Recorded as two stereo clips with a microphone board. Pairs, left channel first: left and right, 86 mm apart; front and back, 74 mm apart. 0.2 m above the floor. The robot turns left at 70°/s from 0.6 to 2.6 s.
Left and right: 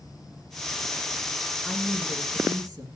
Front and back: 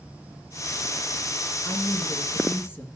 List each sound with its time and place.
1.6 s a woman speaking: 15° left, 2.5 m; by 2.9 s 55° right, 2.5 m